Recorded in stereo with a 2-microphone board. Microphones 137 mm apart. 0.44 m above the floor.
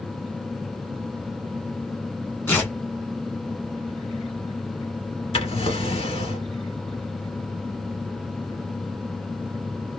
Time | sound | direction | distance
2.5 | tearing paper | 15° left (ahead or behind) | 1.5 m
5.3 | a drawer | 50° left (ahead or behind) | 1.2 m